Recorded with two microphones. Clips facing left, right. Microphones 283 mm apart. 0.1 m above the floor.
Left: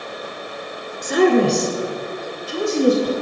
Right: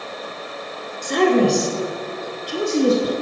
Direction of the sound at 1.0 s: 10° left (ahead or behind).